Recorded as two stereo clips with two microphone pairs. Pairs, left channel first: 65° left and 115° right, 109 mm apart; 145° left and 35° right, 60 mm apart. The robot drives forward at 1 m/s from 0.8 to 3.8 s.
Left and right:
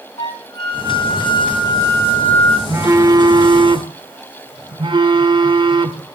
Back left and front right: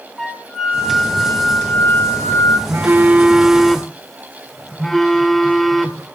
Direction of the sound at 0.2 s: 55° left.